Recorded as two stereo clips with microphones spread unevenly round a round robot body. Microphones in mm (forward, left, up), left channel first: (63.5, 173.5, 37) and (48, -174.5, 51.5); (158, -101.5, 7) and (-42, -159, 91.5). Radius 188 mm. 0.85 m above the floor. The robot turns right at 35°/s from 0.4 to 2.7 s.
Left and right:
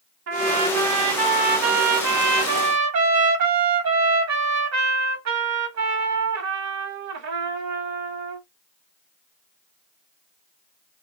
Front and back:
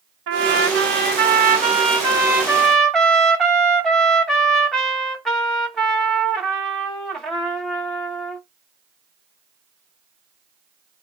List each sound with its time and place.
0.3 s a trumpet: 135° right, 1.5 m; by 8.4 s 55° right, 1.5 m